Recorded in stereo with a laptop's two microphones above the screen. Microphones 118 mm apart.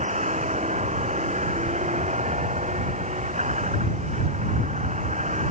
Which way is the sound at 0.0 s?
80° right.